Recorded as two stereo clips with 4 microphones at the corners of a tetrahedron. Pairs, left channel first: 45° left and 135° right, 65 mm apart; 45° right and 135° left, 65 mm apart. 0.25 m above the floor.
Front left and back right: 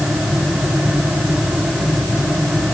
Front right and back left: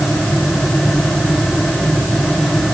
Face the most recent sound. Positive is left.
No sound to turn to.